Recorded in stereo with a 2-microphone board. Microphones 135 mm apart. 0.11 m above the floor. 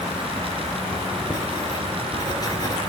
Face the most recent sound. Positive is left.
turn(degrees=30)  # may be behind; listen again after turning